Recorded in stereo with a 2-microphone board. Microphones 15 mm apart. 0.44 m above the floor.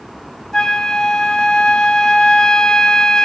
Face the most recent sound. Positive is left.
turn(degrees=50)  # may be behind; listen again after turning